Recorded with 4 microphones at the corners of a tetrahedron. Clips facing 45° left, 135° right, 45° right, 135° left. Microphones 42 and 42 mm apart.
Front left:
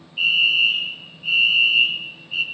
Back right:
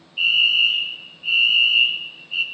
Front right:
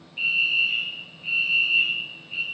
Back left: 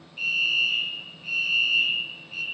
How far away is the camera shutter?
I don't hear a camera shutter.